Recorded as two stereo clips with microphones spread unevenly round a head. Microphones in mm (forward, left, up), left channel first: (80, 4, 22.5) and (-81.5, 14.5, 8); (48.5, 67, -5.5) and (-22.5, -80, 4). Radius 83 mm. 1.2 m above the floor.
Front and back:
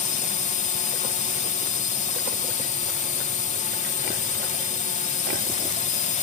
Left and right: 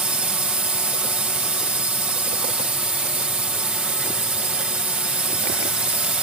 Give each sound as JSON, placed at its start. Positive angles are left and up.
{"t": 0.0, "sound": "a drone", "azimuth_deg": -35}